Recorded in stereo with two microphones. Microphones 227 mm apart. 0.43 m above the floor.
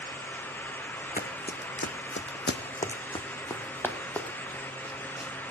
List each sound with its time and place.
1.2 s running footsteps: 40° left (ahead or behind), 1.4 m; by 5.5 s centre (ahead or behind), 3 m